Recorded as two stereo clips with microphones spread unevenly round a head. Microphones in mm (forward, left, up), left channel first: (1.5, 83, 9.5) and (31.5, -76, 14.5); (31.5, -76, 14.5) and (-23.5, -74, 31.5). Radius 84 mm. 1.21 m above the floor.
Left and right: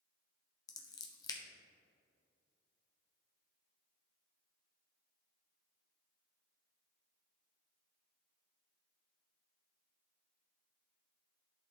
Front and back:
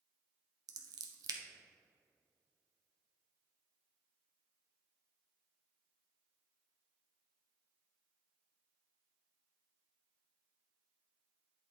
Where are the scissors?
170° left, 0.7 m.